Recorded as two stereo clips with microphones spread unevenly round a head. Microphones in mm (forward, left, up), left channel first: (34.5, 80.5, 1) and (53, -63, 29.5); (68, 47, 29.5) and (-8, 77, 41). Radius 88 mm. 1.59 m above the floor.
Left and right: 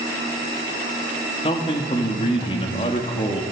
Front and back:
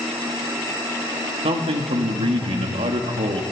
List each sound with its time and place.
1.4 s a man speaking: 165° left, 2.5 m